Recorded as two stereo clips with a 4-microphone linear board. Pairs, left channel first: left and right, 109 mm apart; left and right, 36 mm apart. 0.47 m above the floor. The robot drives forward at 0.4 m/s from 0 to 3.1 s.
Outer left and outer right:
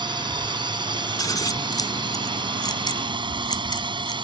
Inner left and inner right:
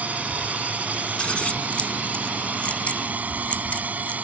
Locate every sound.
0.0 s a drone: 45° right (ahead or behind)
1.2 s scissors: 35° left (ahead or behind); by 4.1 s 40° left (ahead or behind)